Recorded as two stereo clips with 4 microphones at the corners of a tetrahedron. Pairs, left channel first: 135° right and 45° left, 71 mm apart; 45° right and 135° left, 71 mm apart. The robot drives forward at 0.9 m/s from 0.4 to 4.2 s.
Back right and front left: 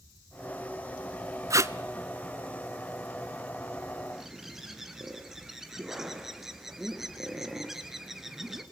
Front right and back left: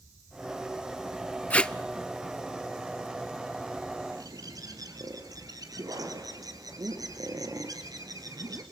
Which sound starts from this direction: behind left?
A bird, at 4.1 s.